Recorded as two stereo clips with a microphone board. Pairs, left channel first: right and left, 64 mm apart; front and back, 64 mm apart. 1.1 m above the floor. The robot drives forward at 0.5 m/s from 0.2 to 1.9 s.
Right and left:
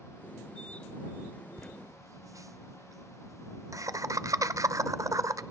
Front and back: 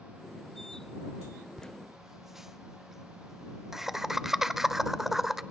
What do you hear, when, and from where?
1.6 s laughter: 80° left, 0.6 m; by 5.4 s 95° left, 0.6 m